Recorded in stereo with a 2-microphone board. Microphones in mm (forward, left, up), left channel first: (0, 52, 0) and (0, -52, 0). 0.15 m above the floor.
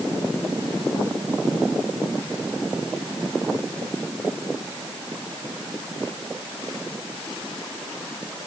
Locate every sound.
Only background noise.